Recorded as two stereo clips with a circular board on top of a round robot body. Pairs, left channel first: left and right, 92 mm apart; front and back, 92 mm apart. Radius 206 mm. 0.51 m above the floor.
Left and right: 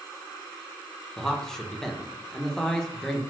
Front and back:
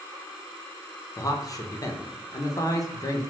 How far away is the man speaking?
About 0.7 m.